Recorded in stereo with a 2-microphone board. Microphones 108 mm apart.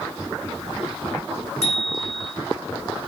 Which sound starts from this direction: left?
A bicycle bell, at 1.6 s.